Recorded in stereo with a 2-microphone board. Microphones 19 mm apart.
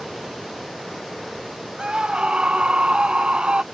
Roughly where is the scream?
Right.